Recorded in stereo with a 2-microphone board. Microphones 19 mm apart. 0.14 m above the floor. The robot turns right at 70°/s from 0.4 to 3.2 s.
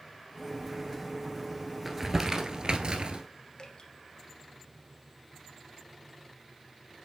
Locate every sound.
1.9 s crumpling: 5° right (ahead or behind), 1.3 m; by 3.2 s 60° right (ahead or behind), 1.3 m
3.6 s dripping: 50° left (ahead or behind), 1.5 m